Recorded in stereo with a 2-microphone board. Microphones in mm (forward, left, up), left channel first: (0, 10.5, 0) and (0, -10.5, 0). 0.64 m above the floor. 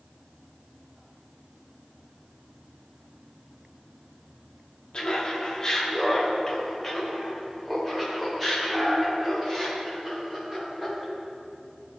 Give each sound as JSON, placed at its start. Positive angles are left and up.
{"t": 4.9, "sound": "laughter", "side_deg": 45, "distance_m": 1.4}